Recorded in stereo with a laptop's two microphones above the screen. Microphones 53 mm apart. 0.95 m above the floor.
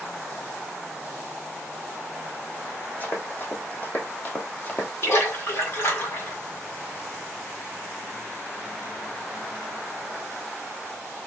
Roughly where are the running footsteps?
Left.